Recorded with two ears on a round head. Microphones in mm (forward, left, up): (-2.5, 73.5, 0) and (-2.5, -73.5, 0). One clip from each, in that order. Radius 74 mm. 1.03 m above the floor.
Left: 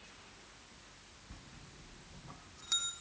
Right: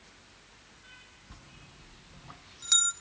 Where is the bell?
45° right (ahead or behind), 0.8 m.